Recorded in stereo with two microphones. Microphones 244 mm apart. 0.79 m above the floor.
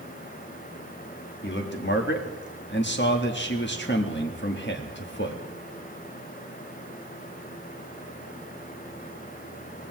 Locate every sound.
1.4 s a man speaking: 45° left (ahead or behind), 1.6 m